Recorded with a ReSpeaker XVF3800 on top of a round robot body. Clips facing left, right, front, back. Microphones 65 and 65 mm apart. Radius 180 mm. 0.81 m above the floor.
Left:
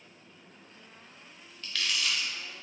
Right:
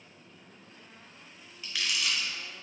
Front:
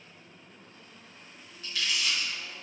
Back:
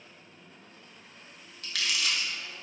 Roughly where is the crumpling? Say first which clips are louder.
Even, even; behind.